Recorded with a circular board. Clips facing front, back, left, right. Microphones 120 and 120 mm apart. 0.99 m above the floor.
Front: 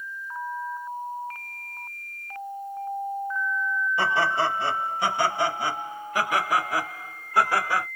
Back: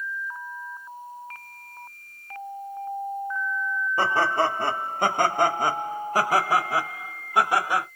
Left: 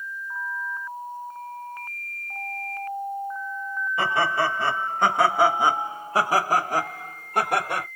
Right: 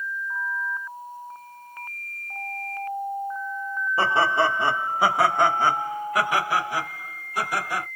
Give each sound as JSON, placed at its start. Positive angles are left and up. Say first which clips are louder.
{"t": 4.0, "sound": "laughter", "louder": "back 2 dB, right 2 dB", "azimuth_deg": -140, "distance_m": 1.3}